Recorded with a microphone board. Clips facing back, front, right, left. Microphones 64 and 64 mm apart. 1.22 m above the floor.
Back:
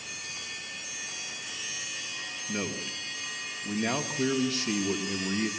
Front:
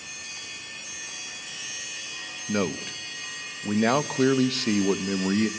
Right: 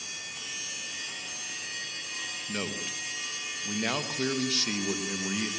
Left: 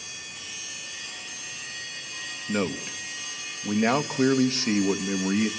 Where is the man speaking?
30° left, 1.4 m.